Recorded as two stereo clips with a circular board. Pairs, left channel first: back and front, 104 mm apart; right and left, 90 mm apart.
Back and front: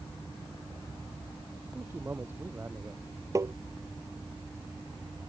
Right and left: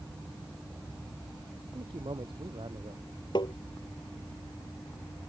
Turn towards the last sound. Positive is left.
turn(degrees=-60)